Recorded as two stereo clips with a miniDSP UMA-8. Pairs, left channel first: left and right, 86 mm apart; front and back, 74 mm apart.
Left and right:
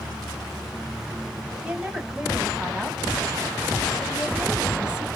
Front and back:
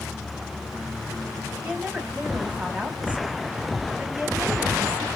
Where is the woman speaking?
145° right, 1.1 m.